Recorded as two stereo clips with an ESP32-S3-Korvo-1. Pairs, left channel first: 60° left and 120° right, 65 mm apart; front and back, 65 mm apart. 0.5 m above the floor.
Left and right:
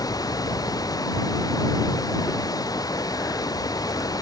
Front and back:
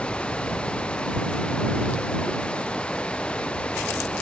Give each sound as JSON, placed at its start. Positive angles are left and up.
{"t": 0.0, "sound": "running water", "azimuth_deg": 75}